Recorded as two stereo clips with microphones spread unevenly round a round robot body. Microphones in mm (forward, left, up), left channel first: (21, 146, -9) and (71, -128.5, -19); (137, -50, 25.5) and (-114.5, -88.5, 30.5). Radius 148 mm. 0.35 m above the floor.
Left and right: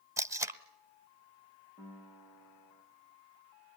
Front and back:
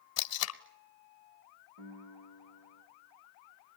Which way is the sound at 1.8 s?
Straight behind.